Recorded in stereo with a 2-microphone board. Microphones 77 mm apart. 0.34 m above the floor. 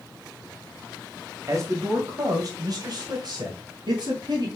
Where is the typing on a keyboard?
I don't hear typing on a keyboard.